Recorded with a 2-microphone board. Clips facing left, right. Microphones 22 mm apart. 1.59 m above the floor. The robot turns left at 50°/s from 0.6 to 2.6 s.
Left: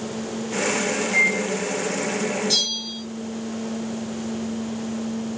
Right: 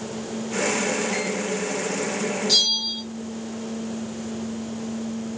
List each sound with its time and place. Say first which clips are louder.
1.1 s a microwave: left 7 dB; 35° right (ahead or behind), 1.8 m; by 1.4 s 50° right (ahead or behind), 1.8 m
2.5 s a bell: right 6 dB; 70° right (ahead or behind), 2.5 m